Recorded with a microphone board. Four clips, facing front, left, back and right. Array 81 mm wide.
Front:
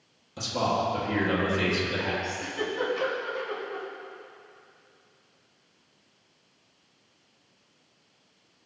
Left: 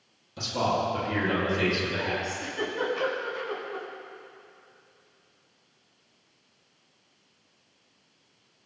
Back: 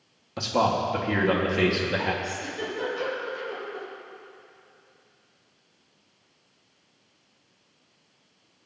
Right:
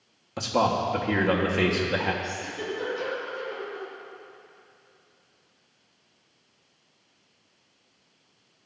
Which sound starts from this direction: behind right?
A man speaking, at 0.4 s.